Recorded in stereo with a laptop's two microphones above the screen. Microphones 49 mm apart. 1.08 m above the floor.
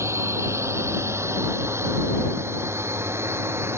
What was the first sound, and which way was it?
A drone, 70° right (ahead or behind).